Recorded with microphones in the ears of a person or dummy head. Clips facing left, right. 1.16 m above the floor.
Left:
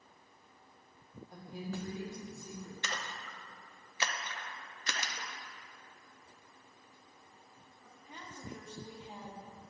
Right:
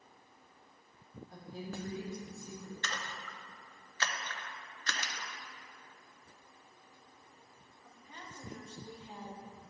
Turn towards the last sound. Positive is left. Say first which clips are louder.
# left 1 dB
turn(degrees=25)  # may be behind; listen again after turning